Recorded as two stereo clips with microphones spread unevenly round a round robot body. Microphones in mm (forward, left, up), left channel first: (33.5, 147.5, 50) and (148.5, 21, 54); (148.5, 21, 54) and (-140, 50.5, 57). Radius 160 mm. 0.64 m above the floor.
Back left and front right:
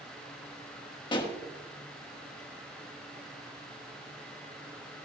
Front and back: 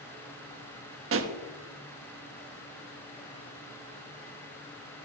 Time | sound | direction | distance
1.1 | a pop | straight behind | 1.4 m